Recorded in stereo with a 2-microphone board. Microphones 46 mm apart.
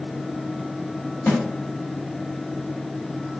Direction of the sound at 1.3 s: 50° left (ahead or behind).